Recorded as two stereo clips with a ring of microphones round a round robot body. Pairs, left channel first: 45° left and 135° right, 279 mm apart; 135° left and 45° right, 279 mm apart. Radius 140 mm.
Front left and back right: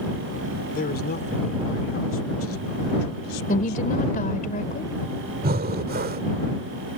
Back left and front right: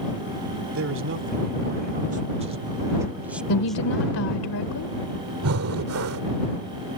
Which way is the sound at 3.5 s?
105° left.